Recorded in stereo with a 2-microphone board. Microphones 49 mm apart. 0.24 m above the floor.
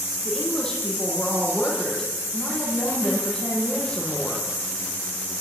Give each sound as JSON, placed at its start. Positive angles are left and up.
{"t": 0.2, "sound": "a woman speaking", "side_deg": 15, "distance_m": 8.0}